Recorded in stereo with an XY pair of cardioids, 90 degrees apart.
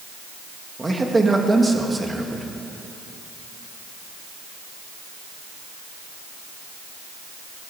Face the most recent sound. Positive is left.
turn(degrees=-20)